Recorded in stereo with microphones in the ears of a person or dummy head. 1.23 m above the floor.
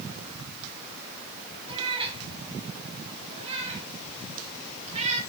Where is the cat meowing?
25° right (ahead or behind), 2.5 m; by 5.2 s 35° right (ahead or behind), 4.5 m.